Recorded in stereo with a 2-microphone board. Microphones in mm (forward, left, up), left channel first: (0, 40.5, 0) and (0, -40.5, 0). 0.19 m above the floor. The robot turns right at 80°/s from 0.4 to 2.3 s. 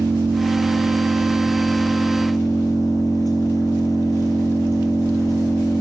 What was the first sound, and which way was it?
An engine running, 100° right.